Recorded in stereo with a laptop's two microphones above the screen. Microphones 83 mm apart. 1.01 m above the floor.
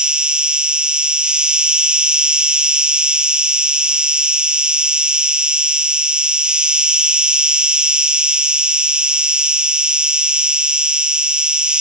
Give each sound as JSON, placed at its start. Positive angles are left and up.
{"t": 0.0, "sound": "an insect", "side_deg": -10, "distance_m": 0.8}